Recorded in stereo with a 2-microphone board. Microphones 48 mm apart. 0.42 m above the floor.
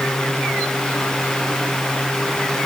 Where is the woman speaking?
No woman speaking in this recording.